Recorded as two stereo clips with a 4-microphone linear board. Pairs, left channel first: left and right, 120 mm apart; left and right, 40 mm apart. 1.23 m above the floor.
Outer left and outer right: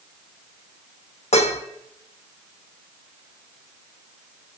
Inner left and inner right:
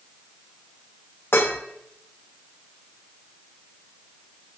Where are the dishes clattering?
60° left (ahead or behind), 1.3 m.